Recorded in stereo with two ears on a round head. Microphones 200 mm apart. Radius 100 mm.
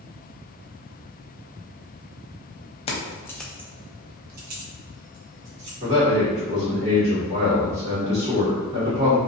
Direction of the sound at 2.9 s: 25° left (ahead or behind).